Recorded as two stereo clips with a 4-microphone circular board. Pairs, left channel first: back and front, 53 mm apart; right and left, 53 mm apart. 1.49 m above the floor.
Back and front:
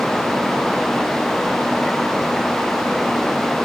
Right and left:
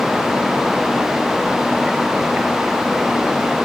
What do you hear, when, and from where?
Only background noise.